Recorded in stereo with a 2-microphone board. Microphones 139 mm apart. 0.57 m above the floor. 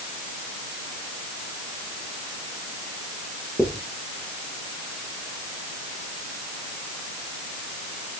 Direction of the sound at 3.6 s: 5° right (ahead or behind).